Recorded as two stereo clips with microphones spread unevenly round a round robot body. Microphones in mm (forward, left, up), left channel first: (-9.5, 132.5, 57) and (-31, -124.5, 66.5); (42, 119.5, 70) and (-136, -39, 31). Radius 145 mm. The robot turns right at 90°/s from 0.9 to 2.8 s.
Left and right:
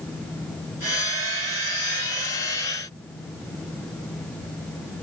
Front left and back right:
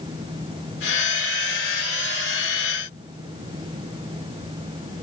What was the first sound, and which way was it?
Only background noise.